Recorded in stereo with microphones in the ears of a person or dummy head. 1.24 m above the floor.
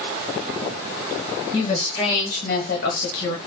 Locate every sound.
1.5 s a woman speaking: 25° left (ahead or behind), 1.7 m; by 3.4 s 60° left (ahead or behind), 1.1 m